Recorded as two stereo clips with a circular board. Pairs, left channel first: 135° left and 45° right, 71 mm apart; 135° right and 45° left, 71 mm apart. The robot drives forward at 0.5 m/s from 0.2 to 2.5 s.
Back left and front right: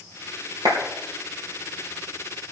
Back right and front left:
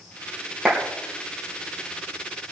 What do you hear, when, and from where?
0.7 s a clap: 35° right, 3.5 m